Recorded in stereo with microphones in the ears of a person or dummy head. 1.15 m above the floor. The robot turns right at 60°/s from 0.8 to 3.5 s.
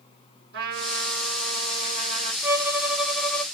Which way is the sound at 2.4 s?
15° right (ahead or behind).